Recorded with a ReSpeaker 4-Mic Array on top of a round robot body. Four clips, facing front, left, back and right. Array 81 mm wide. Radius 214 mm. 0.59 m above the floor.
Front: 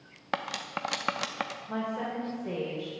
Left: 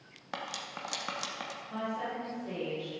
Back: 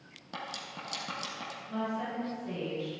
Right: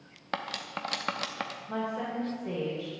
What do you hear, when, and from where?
0.3 s cutlery clinking: 20° right, 0.8 m
1.7 s a woman speaking: 30° right, 2.5 m